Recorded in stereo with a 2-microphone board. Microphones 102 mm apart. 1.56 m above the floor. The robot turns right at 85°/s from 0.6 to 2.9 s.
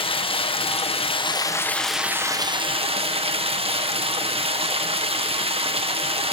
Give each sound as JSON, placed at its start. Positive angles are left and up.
{"t": 0.0, "sound": "running water", "azimuth_deg": 70, "distance_m": 0.8}